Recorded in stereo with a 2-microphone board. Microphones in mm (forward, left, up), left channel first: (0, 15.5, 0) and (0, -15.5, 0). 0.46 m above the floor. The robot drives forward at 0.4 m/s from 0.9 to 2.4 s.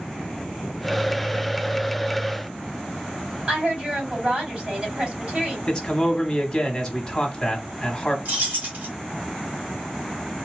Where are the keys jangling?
65° right (ahead or behind), 1.5 m.